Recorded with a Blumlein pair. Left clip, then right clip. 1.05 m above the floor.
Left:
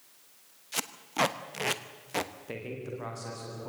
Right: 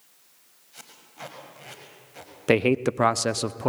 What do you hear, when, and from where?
0.7 s tape being pulled: 40° left, 1.0 m
2.5 s a man speaking: 50° right, 0.7 m